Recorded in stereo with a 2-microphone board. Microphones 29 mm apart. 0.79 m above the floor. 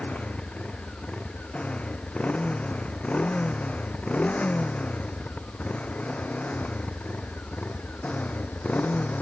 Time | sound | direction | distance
0.0 | a motorcycle | 40° left (ahead or behind) | ?